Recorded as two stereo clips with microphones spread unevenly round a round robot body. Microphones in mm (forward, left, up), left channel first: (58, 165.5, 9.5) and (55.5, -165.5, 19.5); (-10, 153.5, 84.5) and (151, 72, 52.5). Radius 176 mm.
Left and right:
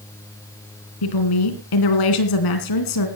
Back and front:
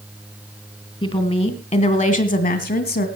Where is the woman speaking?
90° left, 3 m; by 3.1 s 120° left, 3 m.